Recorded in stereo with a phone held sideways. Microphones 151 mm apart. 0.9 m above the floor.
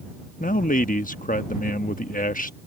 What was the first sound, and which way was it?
A man speaking, 65° left (ahead or behind).